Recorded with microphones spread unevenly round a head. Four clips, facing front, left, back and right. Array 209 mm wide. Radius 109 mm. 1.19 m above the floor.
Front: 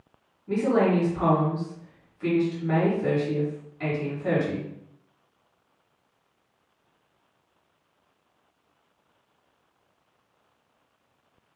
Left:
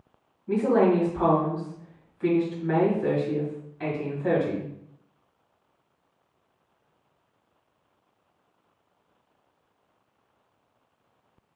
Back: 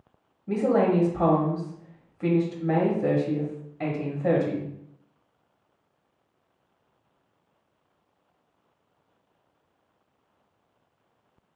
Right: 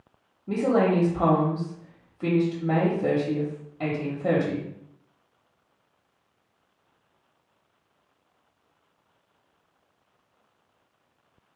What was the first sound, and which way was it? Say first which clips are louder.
A woman speaking: left 1 dB, even; 135° right.